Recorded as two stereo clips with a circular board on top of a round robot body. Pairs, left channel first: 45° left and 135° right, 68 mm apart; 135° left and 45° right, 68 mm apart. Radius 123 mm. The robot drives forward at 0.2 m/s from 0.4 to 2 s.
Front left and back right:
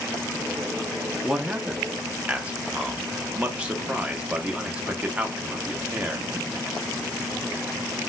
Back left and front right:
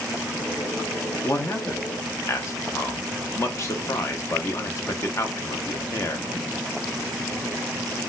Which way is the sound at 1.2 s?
150° left.